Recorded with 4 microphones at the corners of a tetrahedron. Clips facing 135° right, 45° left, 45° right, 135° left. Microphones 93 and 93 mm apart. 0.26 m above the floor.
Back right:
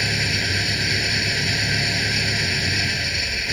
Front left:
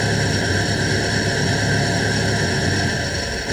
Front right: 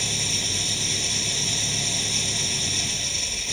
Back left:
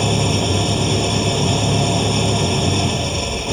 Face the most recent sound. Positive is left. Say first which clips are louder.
# front left 6 dB, back left 15 dB
turn(degrees=100)